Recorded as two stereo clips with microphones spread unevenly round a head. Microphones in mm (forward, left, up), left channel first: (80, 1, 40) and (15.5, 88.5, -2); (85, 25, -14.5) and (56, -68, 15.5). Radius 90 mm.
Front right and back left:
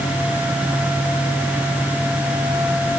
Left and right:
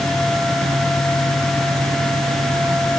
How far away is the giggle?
No giggle in this recording.